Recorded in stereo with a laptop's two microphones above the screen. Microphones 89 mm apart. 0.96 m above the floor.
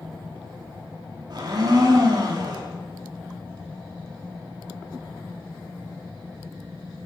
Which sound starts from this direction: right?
A blender, at 1.3 s.